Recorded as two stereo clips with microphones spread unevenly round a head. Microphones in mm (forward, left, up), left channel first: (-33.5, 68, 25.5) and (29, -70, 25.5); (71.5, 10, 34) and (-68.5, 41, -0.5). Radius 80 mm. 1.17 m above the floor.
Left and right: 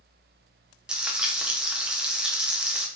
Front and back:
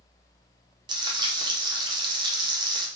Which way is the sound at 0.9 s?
150° right.